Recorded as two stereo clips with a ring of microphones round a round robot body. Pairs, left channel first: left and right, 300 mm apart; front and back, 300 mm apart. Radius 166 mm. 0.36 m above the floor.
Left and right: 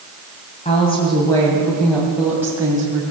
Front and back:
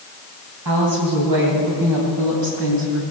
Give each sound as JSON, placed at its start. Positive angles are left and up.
{"t": 0.7, "sound": "a woman speaking", "azimuth_deg": 160, "distance_m": 3.0}